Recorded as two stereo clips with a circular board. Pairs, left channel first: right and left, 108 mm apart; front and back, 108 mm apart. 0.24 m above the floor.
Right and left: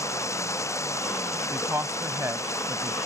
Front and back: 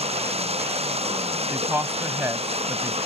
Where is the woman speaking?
130° left.